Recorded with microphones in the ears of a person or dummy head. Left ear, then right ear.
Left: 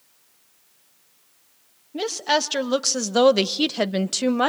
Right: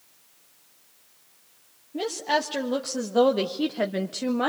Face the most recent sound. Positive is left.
turn(degrees=50)  # may be behind; listen again after turning